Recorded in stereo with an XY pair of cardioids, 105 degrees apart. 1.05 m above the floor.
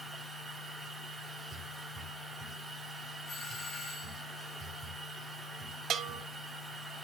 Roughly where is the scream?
No scream in this recording.